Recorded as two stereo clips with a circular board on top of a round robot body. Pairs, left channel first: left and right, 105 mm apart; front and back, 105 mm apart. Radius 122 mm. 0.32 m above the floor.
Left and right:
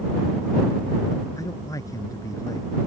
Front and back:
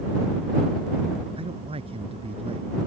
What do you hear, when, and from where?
1.4 s a man speaking: 150° left